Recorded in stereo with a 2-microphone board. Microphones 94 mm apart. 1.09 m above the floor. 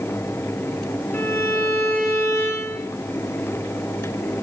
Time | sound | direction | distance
1.1 | a violin | 25° left (ahead or behind) | 1.6 m